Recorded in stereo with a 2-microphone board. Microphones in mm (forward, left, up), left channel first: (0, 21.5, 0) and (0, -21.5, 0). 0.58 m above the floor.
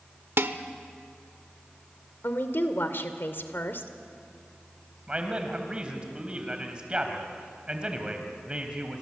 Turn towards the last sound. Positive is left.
turn(degrees=-25)  # may be behind; listen again after turning